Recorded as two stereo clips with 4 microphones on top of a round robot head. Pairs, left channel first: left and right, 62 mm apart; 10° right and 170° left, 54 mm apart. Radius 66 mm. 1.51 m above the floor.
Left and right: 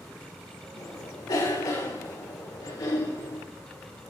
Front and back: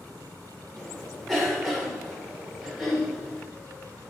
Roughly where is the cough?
Left.